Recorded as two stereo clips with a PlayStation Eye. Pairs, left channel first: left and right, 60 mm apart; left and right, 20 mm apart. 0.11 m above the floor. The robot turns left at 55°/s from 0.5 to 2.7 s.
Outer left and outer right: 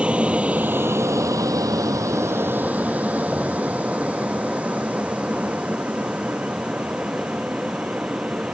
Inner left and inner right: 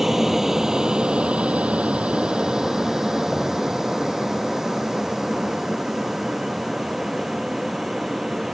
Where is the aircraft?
20° right (ahead or behind).